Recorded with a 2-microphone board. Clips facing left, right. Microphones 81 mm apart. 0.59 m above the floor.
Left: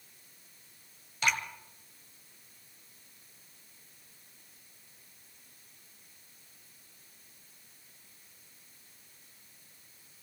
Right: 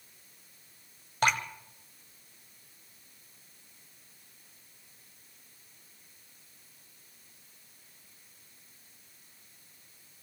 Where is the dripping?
50° right (ahead or behind), 1.5 m.